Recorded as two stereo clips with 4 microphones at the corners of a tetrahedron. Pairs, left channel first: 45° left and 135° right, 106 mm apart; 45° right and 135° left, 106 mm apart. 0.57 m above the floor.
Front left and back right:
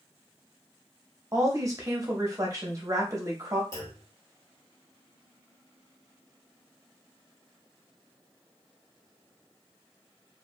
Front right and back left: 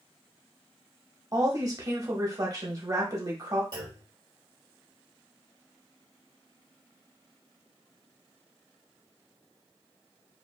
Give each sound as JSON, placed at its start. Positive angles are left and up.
{"t": 1.3, "sound": "a woman speaking", "azimuth_deg": 175, "distance_m": 0.9}
{"t": 3.7, "sound": "a clunk", "azimuth_deg": 100, "distance_m": 1.6}